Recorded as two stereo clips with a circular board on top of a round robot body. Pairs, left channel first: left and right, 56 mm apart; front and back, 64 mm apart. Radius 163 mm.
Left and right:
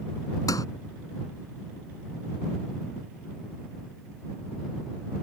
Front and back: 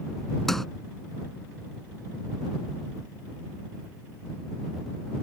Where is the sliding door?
85° left.